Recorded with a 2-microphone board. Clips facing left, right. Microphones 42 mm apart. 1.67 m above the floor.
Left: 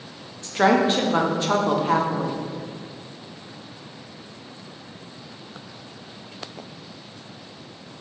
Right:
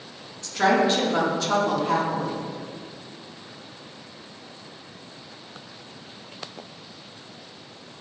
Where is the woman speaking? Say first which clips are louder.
Left 2 dB; 25° left (ahead or behind), 0.6 m.